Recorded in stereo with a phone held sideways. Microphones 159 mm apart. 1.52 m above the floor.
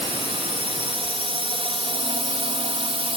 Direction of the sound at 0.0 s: 35° right (ahead or behind).